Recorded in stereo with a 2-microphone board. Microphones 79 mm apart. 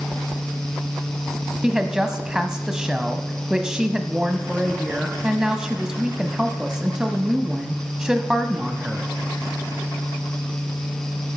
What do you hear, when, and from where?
1.6 s a woman speaking: 10° right (ahead or behind), 1.0 m